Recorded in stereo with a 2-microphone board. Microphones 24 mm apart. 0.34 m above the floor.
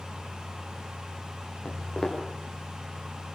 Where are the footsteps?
30° left (ahead or behind), 8 m.